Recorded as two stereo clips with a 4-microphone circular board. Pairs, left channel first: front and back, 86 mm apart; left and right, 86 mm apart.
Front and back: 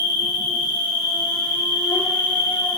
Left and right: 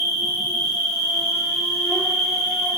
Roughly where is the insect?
Ahead.